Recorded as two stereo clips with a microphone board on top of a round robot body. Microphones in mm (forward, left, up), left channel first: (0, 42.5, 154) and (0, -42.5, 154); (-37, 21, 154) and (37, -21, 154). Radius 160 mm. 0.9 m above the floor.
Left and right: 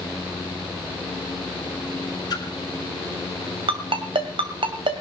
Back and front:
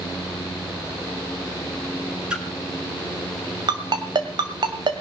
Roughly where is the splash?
Ahead left.